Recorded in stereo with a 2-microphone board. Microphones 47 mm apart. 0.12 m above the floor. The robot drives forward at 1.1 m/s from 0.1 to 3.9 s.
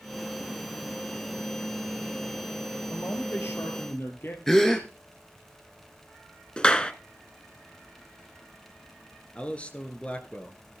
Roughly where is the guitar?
I don't hear a guitar.